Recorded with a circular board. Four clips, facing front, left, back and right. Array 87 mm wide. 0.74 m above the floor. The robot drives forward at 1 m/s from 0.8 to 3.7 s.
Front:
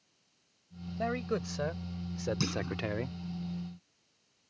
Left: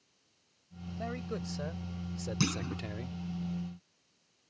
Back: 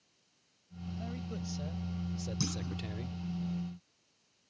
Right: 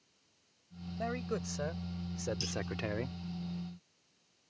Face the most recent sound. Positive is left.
turn(degrees=95)